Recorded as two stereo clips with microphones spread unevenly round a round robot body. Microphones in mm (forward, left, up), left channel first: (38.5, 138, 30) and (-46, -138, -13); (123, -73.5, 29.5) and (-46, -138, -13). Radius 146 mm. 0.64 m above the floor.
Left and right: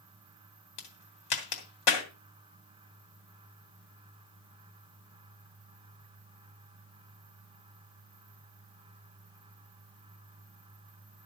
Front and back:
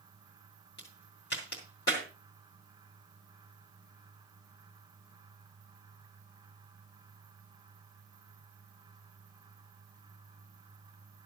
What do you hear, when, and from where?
0.8 s a crack: 80° left, 2.5 m